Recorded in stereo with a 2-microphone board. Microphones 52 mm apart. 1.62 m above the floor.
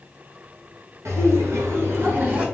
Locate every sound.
1.1 s laughter: 80° right, 2 m; by 2.5 s 30° right (ahead or behind), 1.2 m